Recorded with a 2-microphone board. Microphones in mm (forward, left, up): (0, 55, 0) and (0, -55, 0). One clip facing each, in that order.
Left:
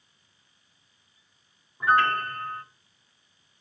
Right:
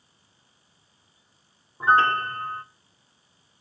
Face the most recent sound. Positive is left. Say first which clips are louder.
# right 2 dB
turn(degrees=-30)  # may be behind; listen again after turning